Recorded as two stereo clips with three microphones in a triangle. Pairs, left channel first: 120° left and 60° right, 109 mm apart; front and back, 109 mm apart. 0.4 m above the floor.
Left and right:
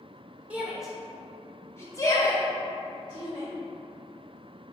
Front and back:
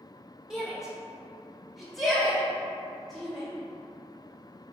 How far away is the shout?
About 0.8 m.